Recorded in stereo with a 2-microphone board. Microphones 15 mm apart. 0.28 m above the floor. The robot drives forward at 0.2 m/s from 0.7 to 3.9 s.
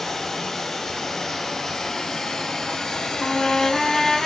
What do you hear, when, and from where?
0.0 s running water: 40° left (ahead or behind), 0.8 m; by 4.3 s 80° left, 0.5 m
3.2 s a trumpet: 40° left (ahead or behind), 0.7 m; by 4.3 s 35° left (ahead or behind), 0.8 m